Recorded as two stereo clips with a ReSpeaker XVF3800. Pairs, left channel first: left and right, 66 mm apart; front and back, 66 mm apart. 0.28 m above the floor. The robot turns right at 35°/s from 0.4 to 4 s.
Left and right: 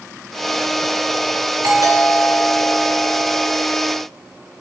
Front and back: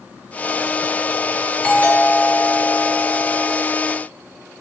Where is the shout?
I don't hear a shout.